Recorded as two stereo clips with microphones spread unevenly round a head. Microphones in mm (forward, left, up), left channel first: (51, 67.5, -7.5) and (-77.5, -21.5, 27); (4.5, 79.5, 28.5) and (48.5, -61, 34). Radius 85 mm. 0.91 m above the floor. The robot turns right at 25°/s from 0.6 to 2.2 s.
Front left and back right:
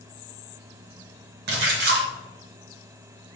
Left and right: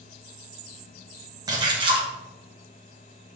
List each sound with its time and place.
1.5 s a splash: 135° right, 1.0 m; by 2.1 s 120° right, 1.0 m